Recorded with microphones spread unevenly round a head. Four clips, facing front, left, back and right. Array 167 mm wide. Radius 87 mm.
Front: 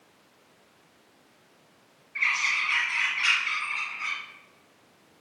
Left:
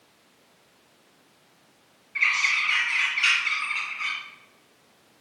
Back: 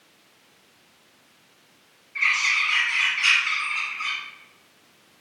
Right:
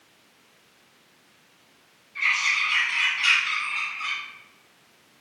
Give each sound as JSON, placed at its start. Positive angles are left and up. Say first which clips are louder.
{"t": 2.1, "sound": "a bird", "louder": "even, back 4 dB", "azimuth_deg": 100, "distance_m": 3.5}